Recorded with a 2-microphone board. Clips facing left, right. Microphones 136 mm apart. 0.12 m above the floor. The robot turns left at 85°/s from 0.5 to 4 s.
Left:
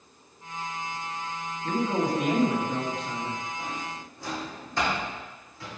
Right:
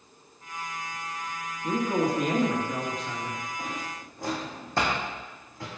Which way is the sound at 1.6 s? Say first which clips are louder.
Right 1 dB; 145° right.